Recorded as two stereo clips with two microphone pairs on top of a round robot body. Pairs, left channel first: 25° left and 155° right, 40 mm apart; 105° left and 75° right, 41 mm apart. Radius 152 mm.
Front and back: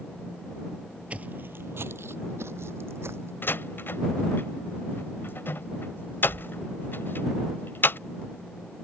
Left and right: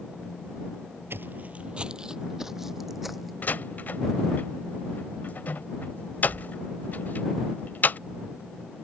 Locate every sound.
1.1 s footsteps: 100° right; by 3.3 s 165° right
3.4 s a door slam: 55° left